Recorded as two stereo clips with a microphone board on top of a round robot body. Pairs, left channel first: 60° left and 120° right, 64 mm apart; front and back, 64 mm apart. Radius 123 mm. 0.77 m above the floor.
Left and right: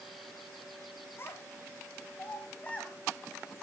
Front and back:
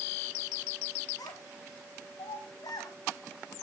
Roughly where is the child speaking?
Ahead.